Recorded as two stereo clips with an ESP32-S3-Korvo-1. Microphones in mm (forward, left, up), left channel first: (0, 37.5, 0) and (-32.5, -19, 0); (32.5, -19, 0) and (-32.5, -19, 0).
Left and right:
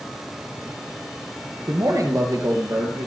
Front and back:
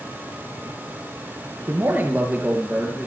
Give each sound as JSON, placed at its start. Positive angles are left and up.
{"t": 1.7, "sound": "a man speaking", "azimuth_deg": -135, "distance_m": 2.5}